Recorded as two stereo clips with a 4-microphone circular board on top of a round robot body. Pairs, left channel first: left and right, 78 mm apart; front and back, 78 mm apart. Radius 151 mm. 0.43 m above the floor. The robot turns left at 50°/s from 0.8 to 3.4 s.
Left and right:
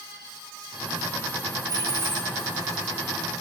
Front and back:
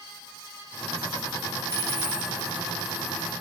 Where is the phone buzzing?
No phone buzzing in this recording.